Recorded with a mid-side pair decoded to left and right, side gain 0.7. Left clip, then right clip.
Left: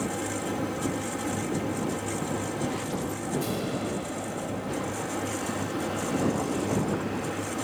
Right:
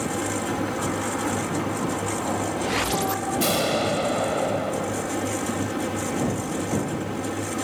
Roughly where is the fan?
Ahead.